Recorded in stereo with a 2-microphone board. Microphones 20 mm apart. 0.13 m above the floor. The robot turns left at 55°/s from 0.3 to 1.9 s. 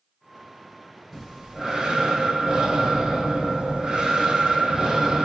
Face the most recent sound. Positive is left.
turn(degrees=-55)